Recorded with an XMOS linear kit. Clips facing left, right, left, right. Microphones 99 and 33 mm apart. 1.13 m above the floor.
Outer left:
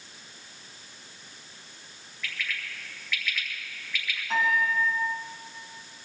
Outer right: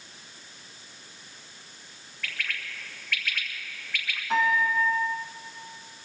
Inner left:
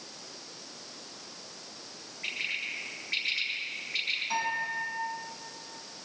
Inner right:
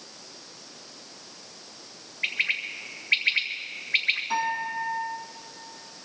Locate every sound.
2.2 s a bird: 60° right (ahead or behind), 2 m
4.3 s a piano: 5° right (ahead or behind), 6.5 m